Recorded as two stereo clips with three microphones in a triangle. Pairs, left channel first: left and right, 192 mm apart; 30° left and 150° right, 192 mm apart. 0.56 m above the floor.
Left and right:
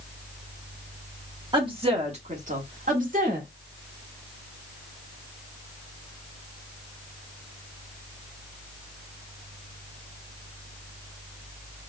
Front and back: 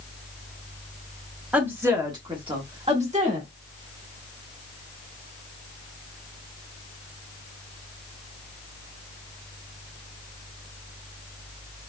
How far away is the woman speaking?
About 1.2 m.